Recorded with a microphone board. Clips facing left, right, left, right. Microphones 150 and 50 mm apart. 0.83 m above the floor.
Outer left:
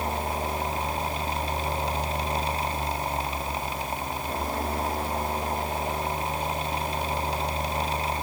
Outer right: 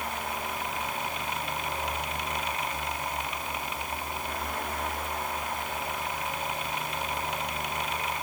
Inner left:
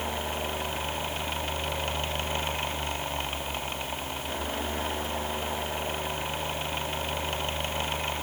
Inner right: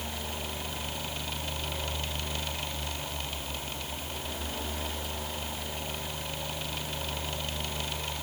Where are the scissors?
No scissors in this recording.